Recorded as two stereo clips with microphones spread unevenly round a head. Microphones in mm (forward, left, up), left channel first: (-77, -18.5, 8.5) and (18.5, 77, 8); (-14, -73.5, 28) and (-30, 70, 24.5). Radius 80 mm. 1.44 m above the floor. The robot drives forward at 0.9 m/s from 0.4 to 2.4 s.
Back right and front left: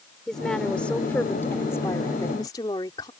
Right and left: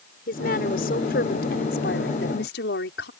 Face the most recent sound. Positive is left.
turn(degrees=-65)